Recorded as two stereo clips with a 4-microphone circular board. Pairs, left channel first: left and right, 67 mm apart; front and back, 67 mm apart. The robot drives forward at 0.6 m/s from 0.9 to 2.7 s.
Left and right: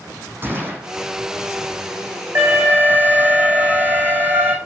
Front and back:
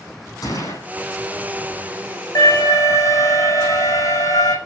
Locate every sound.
0.4 s a gunshot: 25° right, 7.5 m
2.4 s an alarm: 30° right, 7 m